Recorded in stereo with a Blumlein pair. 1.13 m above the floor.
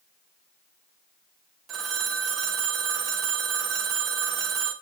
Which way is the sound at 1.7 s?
25° right.